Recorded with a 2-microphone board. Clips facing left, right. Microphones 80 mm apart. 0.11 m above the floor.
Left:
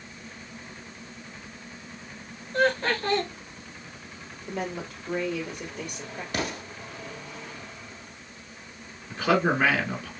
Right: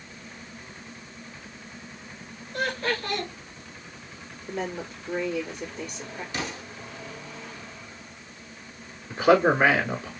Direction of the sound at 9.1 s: 15° right (ahead or behind).